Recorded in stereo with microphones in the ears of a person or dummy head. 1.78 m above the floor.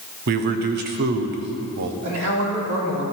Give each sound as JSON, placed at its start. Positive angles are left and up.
{"t": 0.3, "sound": "a man speaking", "side_deg": -45, "distance_m": 0.8}
{"t": 2.0, "sound": "a man speaking", "side_deg": -65, "distance_m": 3.5}